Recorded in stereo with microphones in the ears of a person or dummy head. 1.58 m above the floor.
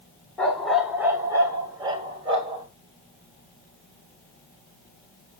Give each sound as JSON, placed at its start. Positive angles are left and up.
{"t": 0.4, "sound": "a dog barking", "side_deg": 0, "distance_m": 1.7}